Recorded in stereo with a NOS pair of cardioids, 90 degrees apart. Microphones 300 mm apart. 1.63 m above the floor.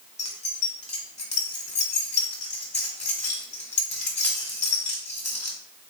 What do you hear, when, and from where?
0.2 s keys jangling: 25° left, 1.5 m